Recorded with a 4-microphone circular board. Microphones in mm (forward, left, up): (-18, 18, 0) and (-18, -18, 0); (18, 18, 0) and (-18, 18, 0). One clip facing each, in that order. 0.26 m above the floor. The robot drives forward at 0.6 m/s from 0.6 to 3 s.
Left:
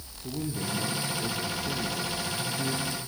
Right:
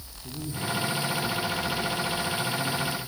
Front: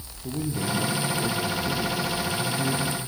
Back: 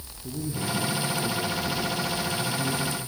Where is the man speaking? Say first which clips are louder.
Even, front 2 dB; 40° left, 5 m; by 3.0 s 50° left, 4 m.